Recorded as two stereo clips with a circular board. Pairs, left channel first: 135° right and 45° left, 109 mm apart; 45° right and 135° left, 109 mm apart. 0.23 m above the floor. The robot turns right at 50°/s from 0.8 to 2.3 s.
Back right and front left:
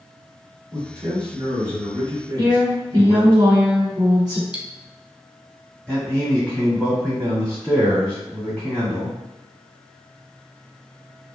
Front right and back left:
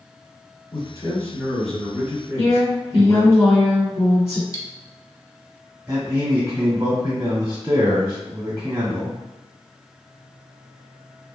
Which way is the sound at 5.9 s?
150° left.